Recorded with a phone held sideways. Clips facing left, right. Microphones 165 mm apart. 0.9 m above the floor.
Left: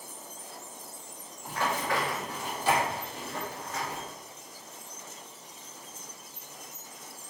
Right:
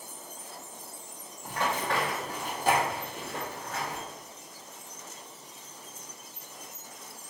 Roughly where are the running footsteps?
Centre.